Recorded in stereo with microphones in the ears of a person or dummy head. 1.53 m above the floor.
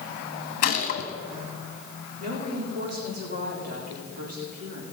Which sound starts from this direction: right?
A woman speaking, at 2.2 s.